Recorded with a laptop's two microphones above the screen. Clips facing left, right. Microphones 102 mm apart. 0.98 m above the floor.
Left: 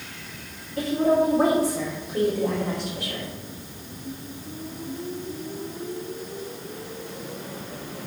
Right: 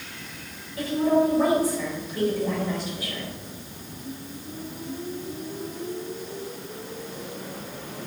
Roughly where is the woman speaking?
Left.